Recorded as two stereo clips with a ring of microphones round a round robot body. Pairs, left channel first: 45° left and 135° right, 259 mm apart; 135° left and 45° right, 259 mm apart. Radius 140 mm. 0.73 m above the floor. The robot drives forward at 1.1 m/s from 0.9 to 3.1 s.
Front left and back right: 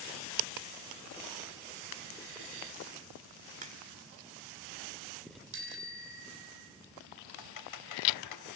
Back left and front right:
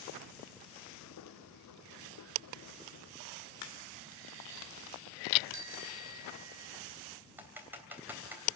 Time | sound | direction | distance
3.6 | a crack | 160° left | 1.7 m
5.5 | a bicycle bell | 90° right | 2.5 m
7.4 | typing on a keyboard | 40° left | 3 m